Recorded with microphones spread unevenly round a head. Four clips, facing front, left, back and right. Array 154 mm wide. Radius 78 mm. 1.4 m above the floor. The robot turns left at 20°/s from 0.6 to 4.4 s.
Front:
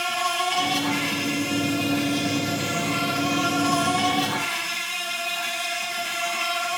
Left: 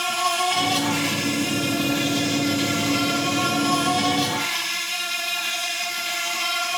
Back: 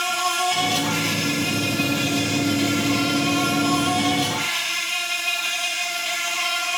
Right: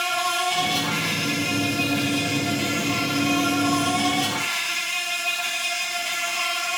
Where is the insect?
75° left, 2.5 m; by 6.8 s straight ahead, 2.5 m.